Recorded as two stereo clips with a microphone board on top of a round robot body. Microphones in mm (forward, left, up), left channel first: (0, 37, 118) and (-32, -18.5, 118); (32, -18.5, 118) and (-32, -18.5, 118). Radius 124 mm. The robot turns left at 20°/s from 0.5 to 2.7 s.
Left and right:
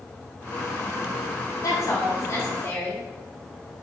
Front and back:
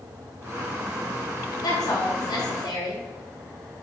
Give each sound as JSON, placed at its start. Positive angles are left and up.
{"t": 1.6, "sound": "a woman speaking", "azimuth_deg": 20, "distance_m": 4.5}